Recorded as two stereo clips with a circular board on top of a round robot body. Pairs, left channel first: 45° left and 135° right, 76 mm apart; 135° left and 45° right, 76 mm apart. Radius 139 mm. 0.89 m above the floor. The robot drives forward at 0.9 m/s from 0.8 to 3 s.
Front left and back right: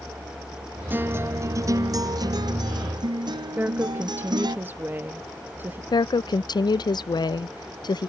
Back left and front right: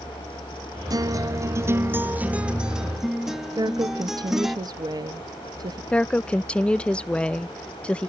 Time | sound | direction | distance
0.9 | a guitar | 75° right | ?
3.6 | a woman speaking | 75° right | ?
5.9 | a woman speaking | 60° left | ?